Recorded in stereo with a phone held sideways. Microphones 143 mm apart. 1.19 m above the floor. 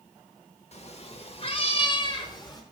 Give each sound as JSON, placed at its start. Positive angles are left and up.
{"t": 0.7, "sound": "a cat meowing", "side_deg": 45, "distance_m": 1.1}